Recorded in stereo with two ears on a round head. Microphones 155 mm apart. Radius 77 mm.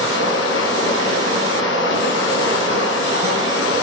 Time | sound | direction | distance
0.0 | running water | 80° left | 2.5 m